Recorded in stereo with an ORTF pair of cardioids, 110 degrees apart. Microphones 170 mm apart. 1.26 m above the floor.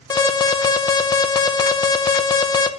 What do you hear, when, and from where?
0.1 s an alarm: 25° left, 0.7 m